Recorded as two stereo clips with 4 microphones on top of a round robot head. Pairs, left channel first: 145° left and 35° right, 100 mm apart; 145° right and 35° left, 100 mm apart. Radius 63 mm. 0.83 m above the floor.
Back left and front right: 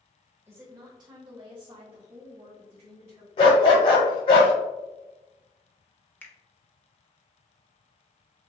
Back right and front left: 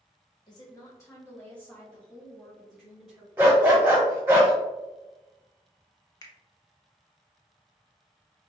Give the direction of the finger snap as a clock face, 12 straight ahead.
5 o'clock.